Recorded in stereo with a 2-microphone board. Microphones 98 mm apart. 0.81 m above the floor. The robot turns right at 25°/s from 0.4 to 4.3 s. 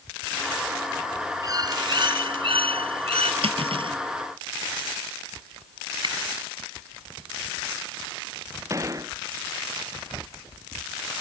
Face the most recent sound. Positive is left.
turn(degrees=-35)  # may be behind; listen again after turning